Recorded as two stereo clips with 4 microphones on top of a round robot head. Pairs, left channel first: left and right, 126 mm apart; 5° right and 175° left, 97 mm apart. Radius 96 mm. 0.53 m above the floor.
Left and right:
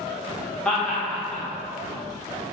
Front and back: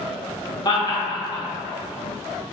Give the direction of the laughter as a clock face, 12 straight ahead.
12 o'clock.